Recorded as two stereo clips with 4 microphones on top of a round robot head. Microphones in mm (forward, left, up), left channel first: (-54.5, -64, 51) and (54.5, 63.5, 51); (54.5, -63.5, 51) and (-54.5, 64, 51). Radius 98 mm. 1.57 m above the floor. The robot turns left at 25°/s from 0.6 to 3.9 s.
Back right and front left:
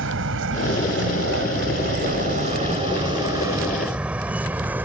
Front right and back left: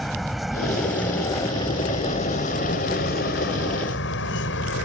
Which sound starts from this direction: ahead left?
A vehicle, at 0.0 s.